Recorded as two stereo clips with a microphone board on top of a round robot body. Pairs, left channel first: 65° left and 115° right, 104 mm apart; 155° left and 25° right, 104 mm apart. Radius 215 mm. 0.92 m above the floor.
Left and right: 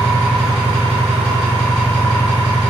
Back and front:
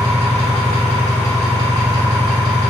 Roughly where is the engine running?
Behind right.